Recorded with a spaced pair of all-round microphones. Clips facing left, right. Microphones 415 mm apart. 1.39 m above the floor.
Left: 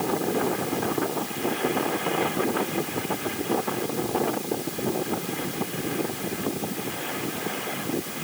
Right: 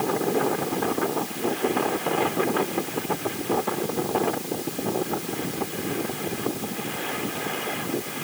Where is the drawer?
No drawer in this recording.